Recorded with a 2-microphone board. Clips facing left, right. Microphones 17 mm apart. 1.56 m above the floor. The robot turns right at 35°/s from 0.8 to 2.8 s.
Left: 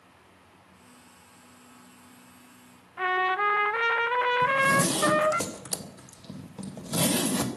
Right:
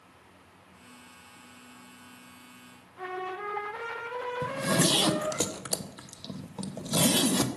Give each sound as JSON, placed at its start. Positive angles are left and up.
{"t": 3.0, "sound": "a trumpet", "side_deg": 75, "distance_m": 0.6}
{"t": 4.4, "sound": "a zipper", "side_deg": -45, "distance_m": 1.5}